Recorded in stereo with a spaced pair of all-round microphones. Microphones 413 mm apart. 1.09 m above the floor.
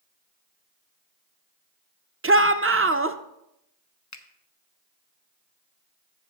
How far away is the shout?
About 0.5 m.